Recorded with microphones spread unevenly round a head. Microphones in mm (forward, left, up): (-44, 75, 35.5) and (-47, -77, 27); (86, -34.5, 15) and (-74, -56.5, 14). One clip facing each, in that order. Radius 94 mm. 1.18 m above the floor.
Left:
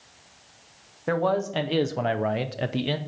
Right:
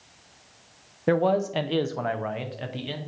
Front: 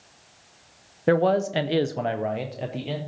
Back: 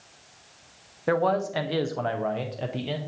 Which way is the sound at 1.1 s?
40° right.